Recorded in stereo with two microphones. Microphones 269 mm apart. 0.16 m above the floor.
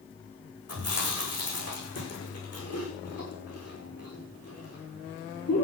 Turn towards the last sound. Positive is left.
turn(degrees=65)  # may be behind; listen again after turning